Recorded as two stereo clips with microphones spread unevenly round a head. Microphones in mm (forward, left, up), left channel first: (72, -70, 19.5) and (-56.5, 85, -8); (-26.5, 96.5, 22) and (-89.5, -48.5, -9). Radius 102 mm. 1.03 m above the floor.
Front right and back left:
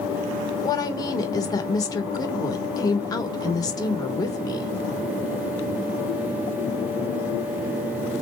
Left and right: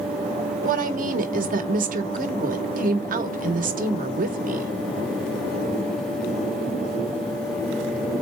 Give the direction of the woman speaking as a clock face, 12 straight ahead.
4 o'clock.